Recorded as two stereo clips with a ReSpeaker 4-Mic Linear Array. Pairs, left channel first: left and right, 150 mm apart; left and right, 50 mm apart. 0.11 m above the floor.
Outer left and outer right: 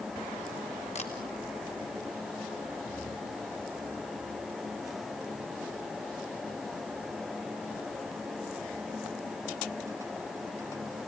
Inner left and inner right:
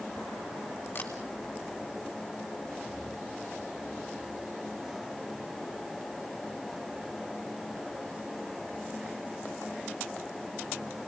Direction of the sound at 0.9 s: 45° left (ahead or behind).